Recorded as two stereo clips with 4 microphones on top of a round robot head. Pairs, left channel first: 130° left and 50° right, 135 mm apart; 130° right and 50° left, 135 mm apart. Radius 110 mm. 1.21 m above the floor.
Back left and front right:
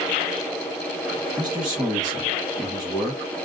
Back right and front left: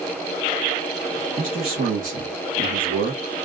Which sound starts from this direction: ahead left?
A man speaking, at 1.4 s.